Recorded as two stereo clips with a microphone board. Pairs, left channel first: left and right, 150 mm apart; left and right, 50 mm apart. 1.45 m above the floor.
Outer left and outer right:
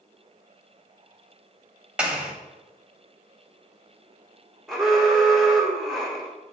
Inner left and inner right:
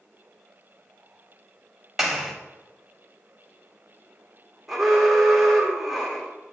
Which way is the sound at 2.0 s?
5° right (ahead or behind).